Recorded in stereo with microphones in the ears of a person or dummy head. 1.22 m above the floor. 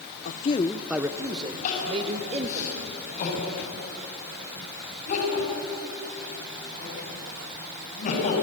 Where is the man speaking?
50° left (ahead or behind), 0.7 m; by 2.6 s 35° right (ahead or behind), 2.5 m.